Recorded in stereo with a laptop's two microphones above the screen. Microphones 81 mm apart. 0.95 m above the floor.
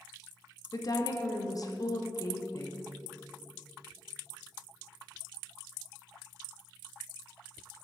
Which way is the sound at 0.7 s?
45° left (ahead or behind).